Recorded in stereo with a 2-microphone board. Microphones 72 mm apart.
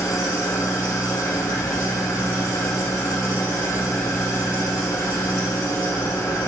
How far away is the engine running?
About 1.2 m.